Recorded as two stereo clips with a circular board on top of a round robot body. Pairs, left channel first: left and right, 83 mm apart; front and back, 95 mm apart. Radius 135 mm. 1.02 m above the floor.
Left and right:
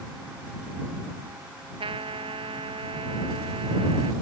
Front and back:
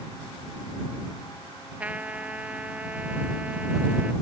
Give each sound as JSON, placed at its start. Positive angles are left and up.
{"t": 1.8, "sound": "a trumpet", "azimuth_deg": -105}